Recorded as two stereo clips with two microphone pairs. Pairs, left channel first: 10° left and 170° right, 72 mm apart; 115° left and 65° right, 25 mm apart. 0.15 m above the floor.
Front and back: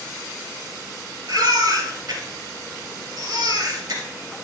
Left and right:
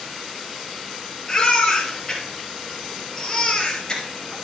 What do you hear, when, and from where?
1.3 s a baby crying: straight behind, 2.5 m